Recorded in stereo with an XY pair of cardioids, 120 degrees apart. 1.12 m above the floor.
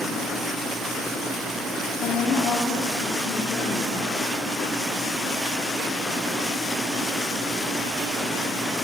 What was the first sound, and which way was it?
A woman speaking, 65° left.